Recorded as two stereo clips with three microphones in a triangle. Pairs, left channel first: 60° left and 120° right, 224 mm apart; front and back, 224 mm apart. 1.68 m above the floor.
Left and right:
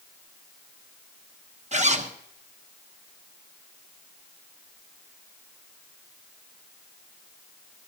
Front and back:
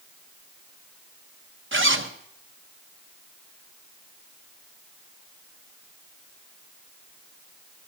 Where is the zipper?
170° right, 0.9 m.